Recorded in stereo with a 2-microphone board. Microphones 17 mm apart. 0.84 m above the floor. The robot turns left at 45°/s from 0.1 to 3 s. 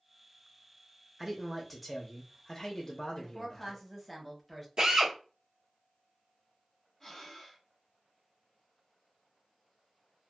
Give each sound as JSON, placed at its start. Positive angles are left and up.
{"t": 1.2, "sound": "a man speaking", "azimuth_deg": -160, "distance_m": 0.6}
{"t": 3.1, "sound": "a woman speaking", "side_deg": 5, "distance_m": 1.1}
{"t": 4.8, "sound": "a drill", "side_deg": -60, "distance_m": 1.2}
{"t": 7.0, "sound": "breathing", "side_deg": 20, "distance_m": 1.0}